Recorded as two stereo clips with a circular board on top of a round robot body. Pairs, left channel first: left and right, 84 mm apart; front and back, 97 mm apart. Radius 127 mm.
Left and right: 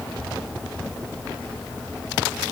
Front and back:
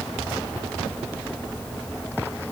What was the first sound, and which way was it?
Only background noise.